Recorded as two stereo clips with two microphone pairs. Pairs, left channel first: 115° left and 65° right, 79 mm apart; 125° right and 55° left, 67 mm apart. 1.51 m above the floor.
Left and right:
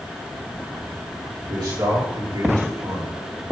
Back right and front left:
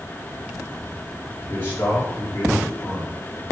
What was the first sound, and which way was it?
A man speaking, 70° right.